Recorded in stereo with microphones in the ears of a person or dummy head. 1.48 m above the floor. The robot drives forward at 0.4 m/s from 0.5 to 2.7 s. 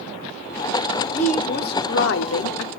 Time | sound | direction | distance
1.1 | a woman speaking | 35° left (ahead or behind) | 0.8 m